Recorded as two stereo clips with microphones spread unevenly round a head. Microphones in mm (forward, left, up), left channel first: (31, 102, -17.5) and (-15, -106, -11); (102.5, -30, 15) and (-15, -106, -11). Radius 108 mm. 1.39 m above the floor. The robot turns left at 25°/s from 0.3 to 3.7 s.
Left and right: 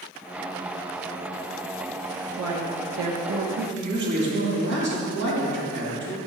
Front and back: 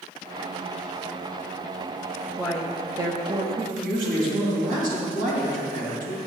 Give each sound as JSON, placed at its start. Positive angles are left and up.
{"t": 2.4, "sound": "a woman speaking", "azimuth_deg": -65, "distance_m": 1.1}
{"t": 3.8, "sound": "a man speaking", "azimuth_deg": -140, "distance_m": 3.0}